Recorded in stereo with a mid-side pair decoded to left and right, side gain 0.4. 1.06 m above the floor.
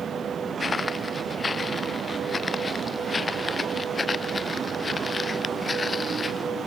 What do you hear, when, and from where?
0.6 s footsteps: 30° left